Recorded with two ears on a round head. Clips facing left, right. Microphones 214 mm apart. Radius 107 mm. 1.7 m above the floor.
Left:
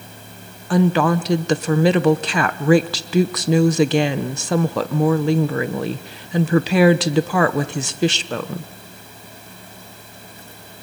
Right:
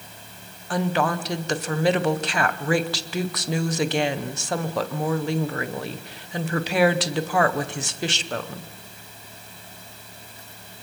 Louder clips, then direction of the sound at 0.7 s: Left 7 dB; 65° left (ahead or behind).